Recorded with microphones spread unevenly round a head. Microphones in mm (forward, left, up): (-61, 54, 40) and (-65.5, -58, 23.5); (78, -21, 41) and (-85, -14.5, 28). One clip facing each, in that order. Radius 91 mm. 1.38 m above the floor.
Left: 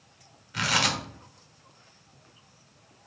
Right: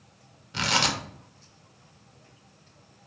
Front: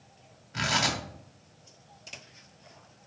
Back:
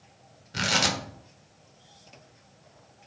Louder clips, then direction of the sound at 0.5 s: Right 1 dB, back 2 dB; 150° right.